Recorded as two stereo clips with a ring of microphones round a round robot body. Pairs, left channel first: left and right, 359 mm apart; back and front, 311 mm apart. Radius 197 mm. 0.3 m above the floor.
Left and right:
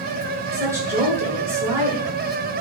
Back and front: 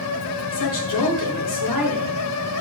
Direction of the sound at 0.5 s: 170° right.